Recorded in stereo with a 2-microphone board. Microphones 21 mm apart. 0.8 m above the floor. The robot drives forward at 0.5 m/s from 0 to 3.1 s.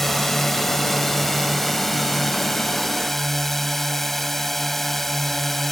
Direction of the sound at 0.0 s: 15° left (ahead or behind).